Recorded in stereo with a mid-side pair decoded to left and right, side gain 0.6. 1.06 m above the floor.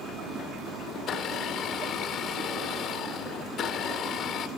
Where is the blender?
50° left, 2 m.